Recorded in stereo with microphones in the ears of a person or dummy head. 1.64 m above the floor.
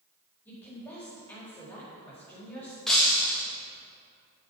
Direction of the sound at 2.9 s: Centre (ahead or behind).